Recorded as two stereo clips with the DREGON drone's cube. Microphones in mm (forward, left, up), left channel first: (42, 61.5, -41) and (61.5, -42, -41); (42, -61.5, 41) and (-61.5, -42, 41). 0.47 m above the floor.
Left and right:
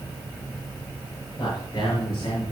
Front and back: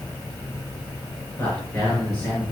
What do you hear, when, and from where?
1.4 s a man speaking: 55° left, 6 m; by 2.5 s 65° left, 6 m